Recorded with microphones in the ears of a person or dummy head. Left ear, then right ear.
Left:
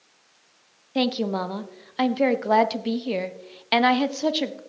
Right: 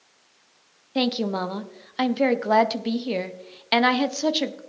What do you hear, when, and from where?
0.9 s a woman speaking: 5° right (ahead or behind), 0.6 m